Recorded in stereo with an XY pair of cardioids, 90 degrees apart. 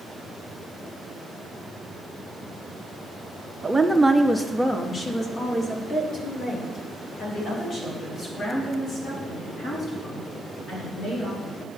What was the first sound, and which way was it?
A woman speaking, 20° right.